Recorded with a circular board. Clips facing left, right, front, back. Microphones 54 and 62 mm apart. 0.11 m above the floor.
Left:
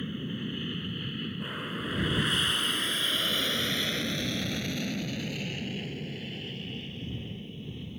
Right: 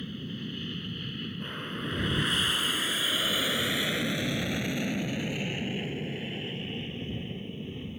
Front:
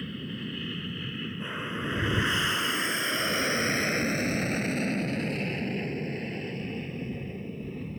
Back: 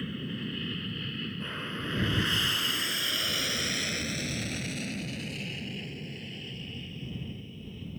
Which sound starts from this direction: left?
An aircraft, at 0.0 s.